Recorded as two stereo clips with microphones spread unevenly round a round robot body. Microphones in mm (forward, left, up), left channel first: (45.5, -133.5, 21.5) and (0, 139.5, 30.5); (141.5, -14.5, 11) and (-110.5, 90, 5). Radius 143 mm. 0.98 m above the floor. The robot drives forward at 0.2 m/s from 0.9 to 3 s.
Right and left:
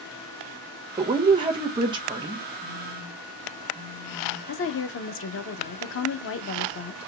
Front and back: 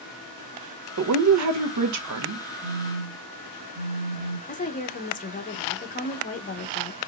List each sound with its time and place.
1.0 s a woman speaking: 170° left, 0.6 m; by 2.5 s 175° left, 0.9 m
2.6 s a phone buzzing: 155° left, 0.6 m; by 4.4 s 160° left, 0.6 m
4.5 s a woman speaking: 75° right, 0.6 m